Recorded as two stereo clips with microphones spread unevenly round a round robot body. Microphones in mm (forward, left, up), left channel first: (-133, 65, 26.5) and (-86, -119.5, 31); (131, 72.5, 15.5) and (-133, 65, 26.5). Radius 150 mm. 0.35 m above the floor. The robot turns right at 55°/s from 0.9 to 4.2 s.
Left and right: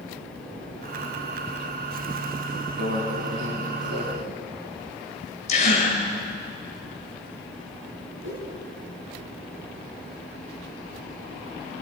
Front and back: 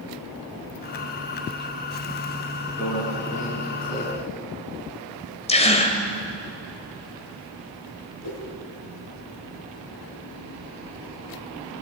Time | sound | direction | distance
2.8 | a microwave | 95° right | 3 m
5.5 | a gasp | 60° left | 1.7 m
8.2 | a whoosh | 35° right | 5 m